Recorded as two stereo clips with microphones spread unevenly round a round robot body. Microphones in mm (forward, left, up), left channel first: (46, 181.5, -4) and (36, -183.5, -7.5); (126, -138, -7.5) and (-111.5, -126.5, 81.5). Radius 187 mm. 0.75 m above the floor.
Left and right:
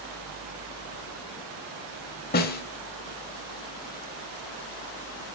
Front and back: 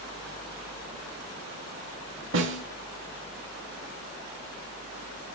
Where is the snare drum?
155° left, 0.9 m.